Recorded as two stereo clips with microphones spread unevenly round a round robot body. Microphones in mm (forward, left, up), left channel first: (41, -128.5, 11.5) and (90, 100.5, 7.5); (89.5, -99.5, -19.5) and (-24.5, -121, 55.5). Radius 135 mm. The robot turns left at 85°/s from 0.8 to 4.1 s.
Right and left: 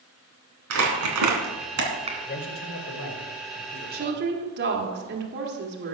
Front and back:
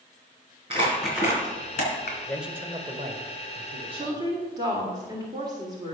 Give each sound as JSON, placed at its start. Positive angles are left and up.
{"t": 0.7, "sound": "crumpling", "azimuth_deg": 120, "distance_m": 2.5}
{"t": 2.3, "sound": "a man speaking", "azimuth_deg": -55, "distance_m": 1.7}
{"t": 3.9, "sound": "a woman speaking", "azimuth_deg": 115, "distance_m": 1.7}